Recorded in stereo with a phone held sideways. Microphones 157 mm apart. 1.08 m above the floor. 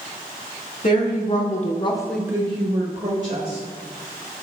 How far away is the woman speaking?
About 2 m.